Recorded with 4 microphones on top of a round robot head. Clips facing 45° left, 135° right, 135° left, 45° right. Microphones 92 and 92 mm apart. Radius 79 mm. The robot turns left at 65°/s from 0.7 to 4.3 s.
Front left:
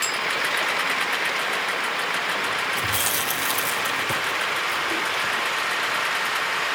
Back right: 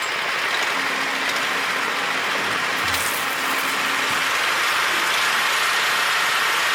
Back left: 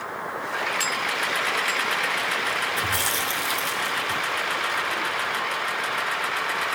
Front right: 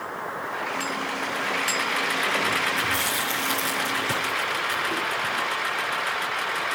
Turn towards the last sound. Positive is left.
turn(degrees=0)